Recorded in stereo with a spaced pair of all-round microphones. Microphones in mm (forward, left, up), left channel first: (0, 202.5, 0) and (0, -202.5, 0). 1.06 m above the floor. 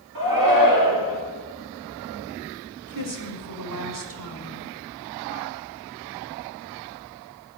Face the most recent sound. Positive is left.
turn(degrees=-50)  # may be behind; listen again after turning